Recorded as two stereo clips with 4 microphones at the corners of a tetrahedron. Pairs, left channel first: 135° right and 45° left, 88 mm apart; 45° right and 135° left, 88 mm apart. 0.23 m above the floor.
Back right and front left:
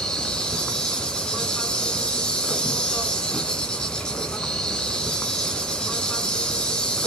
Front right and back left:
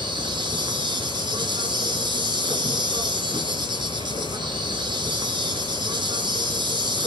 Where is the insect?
145° left, 1.4 m.